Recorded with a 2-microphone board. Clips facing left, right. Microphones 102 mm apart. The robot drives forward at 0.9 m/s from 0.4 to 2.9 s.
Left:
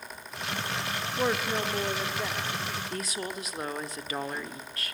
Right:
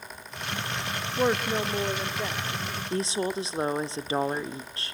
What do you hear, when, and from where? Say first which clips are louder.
1.2 s a woman speaking: right 3 dB; 15° right (ahead or behind), 0.7 m; by 2.8 s 5° right (ahead or behind), 1.8 m
2.9 s a woman speaking: right 7 dB; 30° right (ahead or behind), 0.9 m